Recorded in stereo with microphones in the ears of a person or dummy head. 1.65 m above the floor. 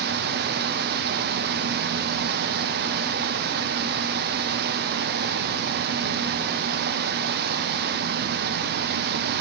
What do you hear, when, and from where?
0.0 s running water: 55° right (ahead or behind), 0.9 m